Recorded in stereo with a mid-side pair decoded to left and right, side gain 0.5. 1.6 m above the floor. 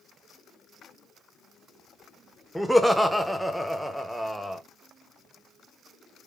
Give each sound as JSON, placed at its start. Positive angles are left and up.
{"t": 2.5, "sound": "laughter", "azimuth_deg": -5, "distance_m": 0.9}